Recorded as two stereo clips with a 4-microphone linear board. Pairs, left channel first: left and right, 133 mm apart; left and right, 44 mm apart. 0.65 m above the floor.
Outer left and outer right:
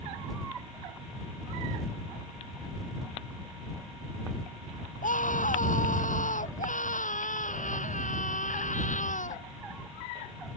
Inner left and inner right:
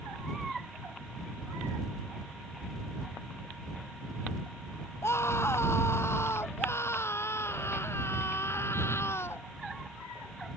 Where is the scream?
70° left (ahead or behind).